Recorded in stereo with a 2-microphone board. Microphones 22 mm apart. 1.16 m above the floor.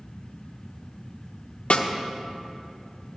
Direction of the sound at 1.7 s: 75° left (ahead or behind).